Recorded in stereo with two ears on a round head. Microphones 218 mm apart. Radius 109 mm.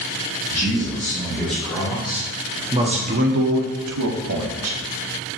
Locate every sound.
0.5 s a man speaking: 10° left (ahead or behind), 3 m; by 4.8 s 60° right (ahead or behind), 1.6 m